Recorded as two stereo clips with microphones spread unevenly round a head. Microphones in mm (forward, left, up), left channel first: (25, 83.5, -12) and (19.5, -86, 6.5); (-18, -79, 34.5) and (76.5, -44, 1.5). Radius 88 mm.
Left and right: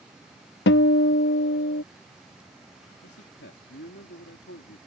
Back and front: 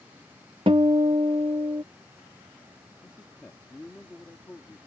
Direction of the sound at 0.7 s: 90° left.